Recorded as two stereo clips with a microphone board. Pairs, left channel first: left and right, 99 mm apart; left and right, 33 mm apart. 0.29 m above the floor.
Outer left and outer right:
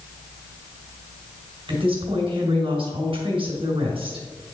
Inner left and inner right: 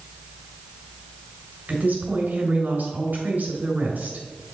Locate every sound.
1.7 s a woman speaking: 60° right (ahead or behind), 2.5 m